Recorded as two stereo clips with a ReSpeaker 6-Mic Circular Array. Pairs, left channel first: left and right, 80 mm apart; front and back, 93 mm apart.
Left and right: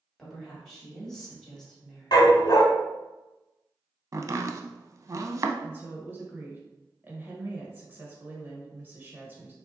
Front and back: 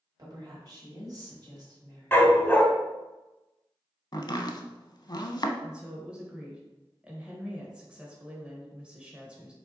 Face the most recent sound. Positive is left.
turn(degrees=-115)